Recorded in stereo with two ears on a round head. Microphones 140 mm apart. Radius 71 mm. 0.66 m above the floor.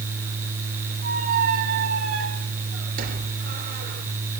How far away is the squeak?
About 4 m.